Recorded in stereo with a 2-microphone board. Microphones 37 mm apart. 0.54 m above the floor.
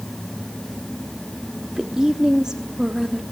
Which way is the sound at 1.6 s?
15° right (ahead or behind).